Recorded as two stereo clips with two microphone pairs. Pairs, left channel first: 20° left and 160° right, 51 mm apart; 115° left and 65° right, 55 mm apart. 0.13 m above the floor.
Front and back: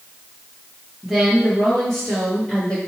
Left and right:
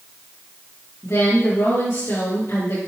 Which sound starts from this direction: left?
A woman speaking, at 1.0 s.